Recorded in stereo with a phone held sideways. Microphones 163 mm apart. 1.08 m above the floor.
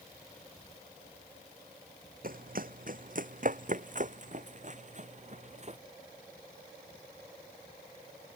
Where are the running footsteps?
60° right (ahead or behind); by 5.8 s 45° right (ahead or behind).